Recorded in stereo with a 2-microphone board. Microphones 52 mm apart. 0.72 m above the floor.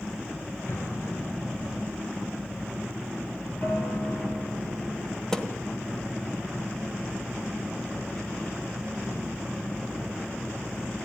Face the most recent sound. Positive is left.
turn(degrees=5)  # may be behind; listen again after turning